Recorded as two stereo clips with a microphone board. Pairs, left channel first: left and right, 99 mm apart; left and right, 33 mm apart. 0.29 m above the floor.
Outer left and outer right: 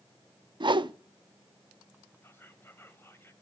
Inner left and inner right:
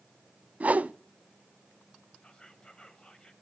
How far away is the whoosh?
About 0.5 m.